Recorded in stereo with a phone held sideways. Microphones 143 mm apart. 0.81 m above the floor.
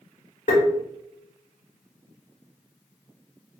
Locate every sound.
0.5 s tapping: 70° left (ahead or behind), 2 m